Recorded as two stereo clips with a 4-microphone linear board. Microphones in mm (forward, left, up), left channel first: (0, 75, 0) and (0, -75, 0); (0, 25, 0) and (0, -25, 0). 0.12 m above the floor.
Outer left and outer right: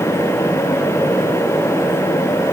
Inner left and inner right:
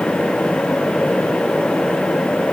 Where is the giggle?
No giggle in this recording.